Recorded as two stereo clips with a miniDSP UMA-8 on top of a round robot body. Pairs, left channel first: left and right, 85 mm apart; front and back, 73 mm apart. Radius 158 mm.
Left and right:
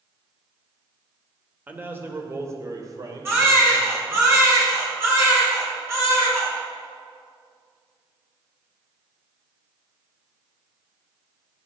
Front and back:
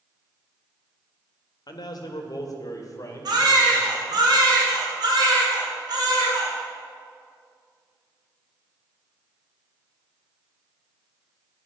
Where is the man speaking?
20° right, 2 m; by 4.2 s 55° right, 3.5 m.